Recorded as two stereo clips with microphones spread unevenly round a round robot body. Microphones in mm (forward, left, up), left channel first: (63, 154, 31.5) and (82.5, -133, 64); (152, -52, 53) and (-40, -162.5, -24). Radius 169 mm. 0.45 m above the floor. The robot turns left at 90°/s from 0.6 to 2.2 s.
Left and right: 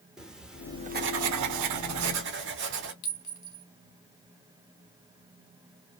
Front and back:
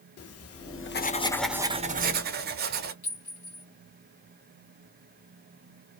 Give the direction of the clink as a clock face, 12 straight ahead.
9 o'clock.